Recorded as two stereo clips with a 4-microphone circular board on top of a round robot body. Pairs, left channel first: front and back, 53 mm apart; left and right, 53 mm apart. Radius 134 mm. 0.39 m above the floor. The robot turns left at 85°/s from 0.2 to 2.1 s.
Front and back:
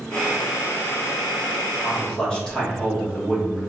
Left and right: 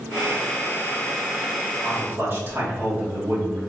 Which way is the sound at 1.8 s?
45° right.